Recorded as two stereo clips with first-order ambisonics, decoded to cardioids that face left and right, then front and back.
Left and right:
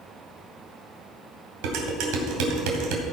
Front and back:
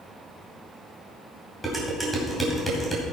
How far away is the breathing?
No breathing in this recording.